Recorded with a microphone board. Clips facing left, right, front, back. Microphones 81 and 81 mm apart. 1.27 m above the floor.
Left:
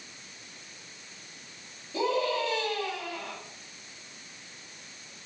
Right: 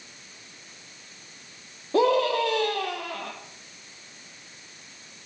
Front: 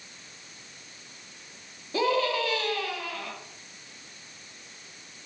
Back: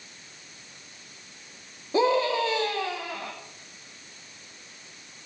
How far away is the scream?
About 2.5 m.